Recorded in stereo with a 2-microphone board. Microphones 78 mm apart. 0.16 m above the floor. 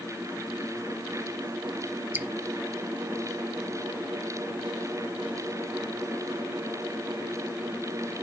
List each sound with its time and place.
2.1 s dripping: 25° right (ahead or behind), 1.1 m